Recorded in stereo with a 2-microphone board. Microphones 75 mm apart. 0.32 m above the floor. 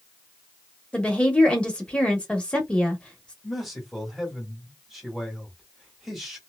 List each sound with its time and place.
0.9 s a woman speaking: 15° left (ahead or behind), 0.9 m
3.4 s a man speaking: 5° right (ahead or behind), 1.3 m